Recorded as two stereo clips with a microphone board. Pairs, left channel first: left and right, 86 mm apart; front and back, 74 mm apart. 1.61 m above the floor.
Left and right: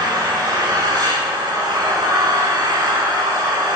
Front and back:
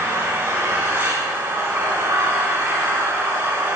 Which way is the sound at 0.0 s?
130° right.